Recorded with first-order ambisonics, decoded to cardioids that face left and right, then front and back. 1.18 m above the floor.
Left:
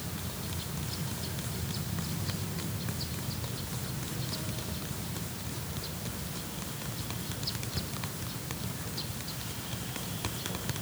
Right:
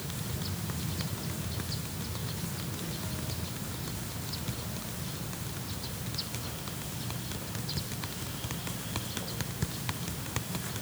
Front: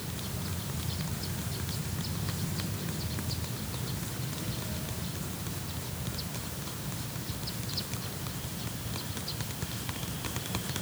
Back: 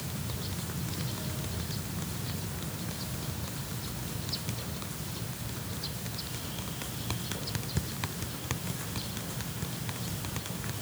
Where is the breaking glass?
I don't hear breaking glass.